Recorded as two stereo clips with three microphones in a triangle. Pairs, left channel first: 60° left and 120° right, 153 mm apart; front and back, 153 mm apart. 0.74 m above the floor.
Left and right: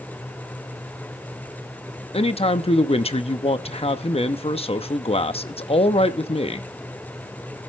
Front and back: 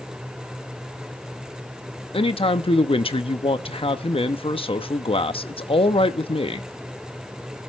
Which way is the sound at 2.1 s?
35° left.